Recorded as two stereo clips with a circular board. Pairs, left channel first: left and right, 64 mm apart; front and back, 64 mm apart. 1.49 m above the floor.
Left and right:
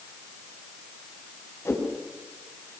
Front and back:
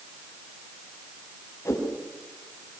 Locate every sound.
1.6 s a whoosh: 45° left, 7 m